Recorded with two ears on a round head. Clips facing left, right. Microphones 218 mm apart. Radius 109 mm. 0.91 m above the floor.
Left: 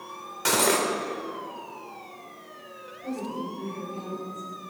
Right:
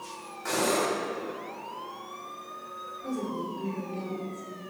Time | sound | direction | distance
0.5 | cutlery clinking | 85° left | 1.8 m
3.0 | a woman speaking | 20° right (ahead or behind) | 3.5 m